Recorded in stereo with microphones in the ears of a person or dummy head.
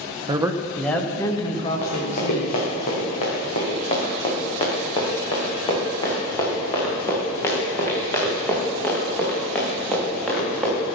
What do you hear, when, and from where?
0.3 s a man speaking: 25° right (ahead or behind), 1.1 m; by 2.6 s 45° left (ahead or behind), 3 m
1.8 s running footsteps: 50° left (ahead or behind), 5 m; by 10.9 s 5° left (ahead or behind), 7 m